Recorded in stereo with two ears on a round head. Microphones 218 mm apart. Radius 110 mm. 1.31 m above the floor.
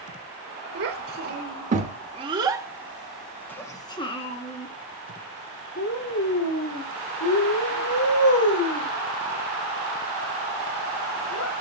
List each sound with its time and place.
0.8 s a child speaking: 45° right (ahead or behind), 1.8 m; by 11.5 s 75° left (ahead or behind), 4.5 m